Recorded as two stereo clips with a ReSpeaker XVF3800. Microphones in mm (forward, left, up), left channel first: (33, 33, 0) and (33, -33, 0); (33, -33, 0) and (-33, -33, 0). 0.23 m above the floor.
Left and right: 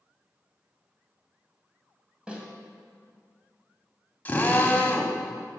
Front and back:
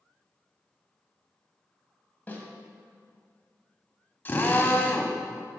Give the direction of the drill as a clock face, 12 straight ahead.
11 o'clock.